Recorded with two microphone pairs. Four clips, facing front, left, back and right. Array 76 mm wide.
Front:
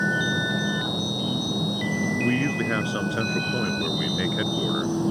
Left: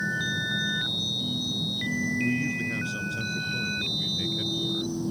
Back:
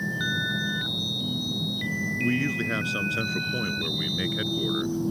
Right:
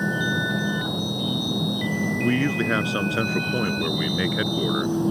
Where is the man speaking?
70° right.